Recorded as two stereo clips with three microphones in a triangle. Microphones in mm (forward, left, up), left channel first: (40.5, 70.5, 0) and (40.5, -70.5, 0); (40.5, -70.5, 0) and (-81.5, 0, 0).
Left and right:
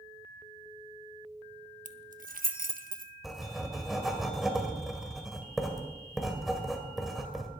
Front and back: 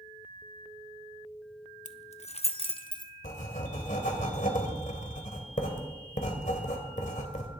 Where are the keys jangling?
60° right, 0.8 m; by 3.1 s 90° right, 1.2 m.